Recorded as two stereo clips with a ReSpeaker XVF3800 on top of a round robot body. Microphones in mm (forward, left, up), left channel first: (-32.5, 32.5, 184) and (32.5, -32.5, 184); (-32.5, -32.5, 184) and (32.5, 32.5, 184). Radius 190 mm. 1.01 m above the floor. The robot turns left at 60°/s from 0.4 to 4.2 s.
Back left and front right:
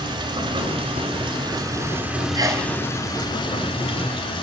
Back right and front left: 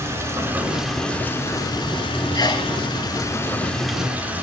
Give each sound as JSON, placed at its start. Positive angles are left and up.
{"t": 0.0, "sound": "running water", "azimuth_deg": -15, "distance_m": 5.0}
{"t": 2.4, "sound": "a sneeze", "azimuth_deg": -90, "distance_m": 6.0}